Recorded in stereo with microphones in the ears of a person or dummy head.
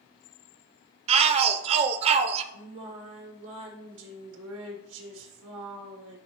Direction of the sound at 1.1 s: 35° right (ahead or behind).